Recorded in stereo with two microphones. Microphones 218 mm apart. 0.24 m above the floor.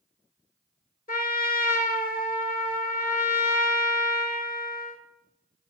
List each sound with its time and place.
1.1 s a trumpet: 45° left (ahead or behind), 0.6 m